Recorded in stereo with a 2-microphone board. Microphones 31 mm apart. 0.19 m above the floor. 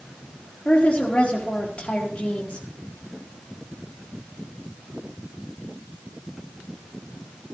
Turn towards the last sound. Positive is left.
turn(degrees=45)  # may be behind; listen again after turning